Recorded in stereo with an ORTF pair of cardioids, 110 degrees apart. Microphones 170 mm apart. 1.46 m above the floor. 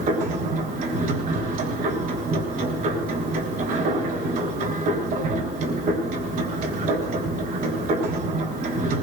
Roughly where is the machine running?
Right.